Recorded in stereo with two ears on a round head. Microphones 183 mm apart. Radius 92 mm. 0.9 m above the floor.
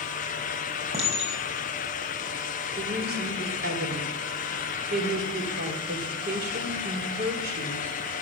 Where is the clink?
35° right (ahead or behind), 4 m.